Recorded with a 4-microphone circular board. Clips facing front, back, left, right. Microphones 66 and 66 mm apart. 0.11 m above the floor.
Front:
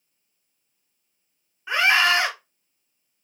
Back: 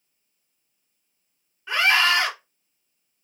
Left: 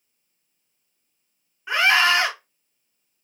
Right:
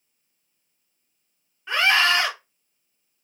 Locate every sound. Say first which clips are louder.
1.7 s a scream: front 1 dB, left 2 dB; 40° left, 1.5 m